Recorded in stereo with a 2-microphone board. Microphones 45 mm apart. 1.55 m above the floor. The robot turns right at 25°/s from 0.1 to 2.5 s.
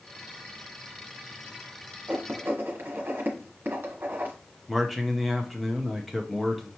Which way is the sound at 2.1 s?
50° right (ahead or behind).